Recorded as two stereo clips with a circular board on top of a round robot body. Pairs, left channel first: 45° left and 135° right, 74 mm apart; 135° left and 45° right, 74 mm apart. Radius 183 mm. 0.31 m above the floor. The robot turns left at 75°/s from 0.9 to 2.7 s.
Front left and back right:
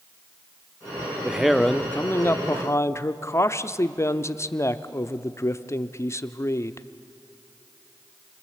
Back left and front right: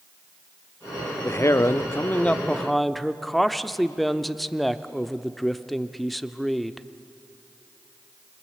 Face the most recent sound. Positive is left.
turn(degrees=45)